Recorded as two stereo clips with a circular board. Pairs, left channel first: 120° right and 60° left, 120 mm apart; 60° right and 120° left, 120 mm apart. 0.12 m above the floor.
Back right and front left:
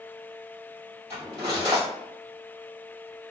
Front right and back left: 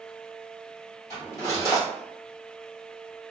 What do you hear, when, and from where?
1.1 s cutlery clinking: 5° right, 1.7 m